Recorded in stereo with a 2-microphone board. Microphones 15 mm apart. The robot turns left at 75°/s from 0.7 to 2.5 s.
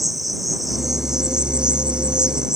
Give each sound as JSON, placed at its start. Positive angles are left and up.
{"t": 0.0, "sound": "an insect", "azimuth_deg": -5}